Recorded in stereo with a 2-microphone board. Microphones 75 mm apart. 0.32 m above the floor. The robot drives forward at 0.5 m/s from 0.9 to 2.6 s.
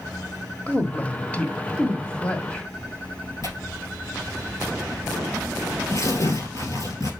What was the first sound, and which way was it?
A woman speaking, 20° left (ahead or behind).